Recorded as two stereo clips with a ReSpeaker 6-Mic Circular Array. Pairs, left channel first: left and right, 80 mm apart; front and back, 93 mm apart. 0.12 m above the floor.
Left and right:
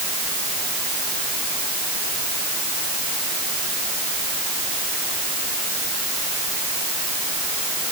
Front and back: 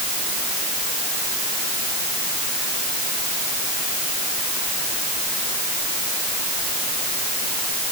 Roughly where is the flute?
No flute in this recording.